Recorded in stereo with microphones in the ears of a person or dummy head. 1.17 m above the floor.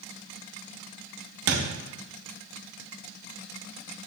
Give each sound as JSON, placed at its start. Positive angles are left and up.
{"t": 1.5, "sound": "a thud", "side_deg": -60, "distance_m": 0.8}